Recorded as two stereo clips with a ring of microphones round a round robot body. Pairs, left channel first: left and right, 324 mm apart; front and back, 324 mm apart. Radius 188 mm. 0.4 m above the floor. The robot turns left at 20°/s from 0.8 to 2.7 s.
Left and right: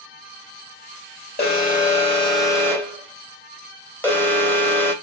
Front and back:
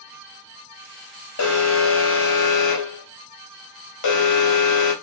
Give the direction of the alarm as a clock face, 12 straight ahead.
11 o'clock.